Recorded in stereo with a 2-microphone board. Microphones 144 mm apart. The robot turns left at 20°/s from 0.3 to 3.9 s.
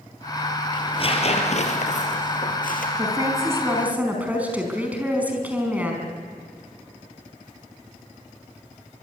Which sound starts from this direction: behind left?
Tearing paper, at 0.7 s.